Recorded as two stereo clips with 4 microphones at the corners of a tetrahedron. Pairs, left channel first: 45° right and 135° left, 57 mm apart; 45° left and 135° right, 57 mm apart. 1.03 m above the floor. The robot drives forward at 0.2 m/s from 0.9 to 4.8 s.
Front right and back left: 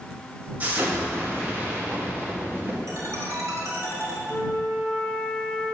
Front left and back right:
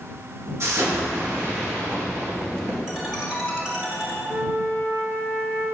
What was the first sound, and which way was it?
An explosion, 170° right.